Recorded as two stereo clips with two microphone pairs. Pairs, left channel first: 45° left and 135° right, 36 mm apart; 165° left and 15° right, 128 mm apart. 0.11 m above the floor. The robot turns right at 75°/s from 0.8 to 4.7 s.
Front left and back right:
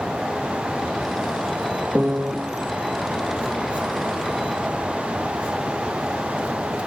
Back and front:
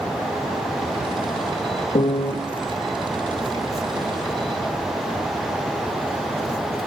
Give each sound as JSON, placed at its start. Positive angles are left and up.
{"t": 1.9, "sound": "a piano", "azimuth_deg": 175, "distance_m": 0.6}